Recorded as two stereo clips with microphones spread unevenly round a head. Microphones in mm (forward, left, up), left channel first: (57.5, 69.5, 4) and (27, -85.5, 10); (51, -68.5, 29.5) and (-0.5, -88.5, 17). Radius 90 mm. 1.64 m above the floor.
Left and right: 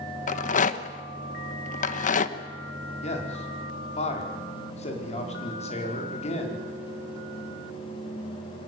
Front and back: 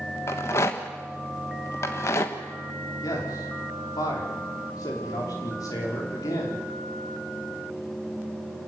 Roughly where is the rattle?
Ahead left.